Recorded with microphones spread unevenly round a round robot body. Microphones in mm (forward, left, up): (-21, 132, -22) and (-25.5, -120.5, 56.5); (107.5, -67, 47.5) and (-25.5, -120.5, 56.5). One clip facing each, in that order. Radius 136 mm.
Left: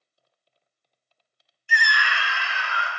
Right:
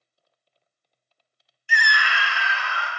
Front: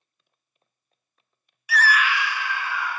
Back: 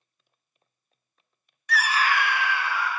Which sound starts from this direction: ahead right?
A scream, at 1.7 s.